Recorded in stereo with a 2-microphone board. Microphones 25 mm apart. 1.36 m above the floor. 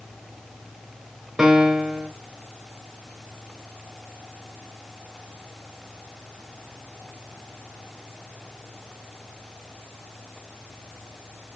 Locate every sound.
1.4 s a piano: 20° right (ahead or behind), 0.7 m